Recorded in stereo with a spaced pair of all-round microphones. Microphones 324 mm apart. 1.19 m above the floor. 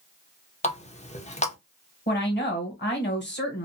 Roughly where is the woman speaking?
Left.